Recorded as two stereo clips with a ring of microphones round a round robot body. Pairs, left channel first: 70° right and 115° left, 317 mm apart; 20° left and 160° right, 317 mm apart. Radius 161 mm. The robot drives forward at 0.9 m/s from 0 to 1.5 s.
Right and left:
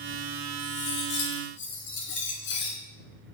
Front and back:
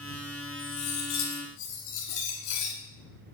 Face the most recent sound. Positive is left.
turn(degrees=-15)